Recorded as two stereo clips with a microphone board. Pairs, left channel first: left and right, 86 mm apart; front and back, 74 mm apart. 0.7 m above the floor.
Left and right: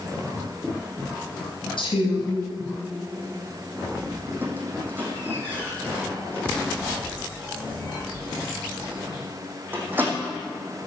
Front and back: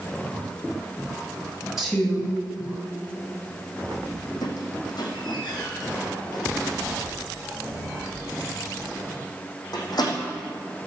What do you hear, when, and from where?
1.8 s a woman speaking: 95° left, 5.5 m
4.4 s a squeak: 20° right, 3 m